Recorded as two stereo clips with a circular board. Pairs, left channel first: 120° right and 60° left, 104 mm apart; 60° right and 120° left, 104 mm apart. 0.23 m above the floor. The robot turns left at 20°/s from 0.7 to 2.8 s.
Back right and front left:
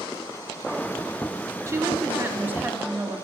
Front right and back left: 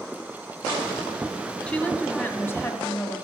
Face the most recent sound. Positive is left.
turn(degrees=-10)